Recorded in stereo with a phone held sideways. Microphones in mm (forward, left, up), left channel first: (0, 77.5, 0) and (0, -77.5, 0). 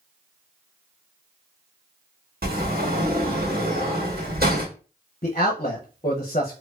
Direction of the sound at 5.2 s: 45° left (ahead or behind).